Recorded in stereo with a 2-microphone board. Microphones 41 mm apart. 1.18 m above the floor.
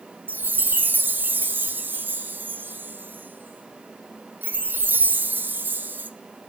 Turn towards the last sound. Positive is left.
turn(degrees=-55)  # may be behind; listen again after turning